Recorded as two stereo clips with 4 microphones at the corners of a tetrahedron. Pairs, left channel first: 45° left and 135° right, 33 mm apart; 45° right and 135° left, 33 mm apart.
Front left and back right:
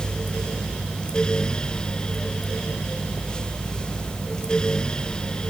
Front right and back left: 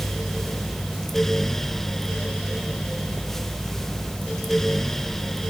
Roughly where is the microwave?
I don't hear a microwave.